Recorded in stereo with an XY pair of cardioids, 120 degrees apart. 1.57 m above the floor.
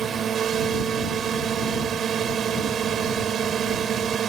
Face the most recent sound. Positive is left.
turn(degrees=-50)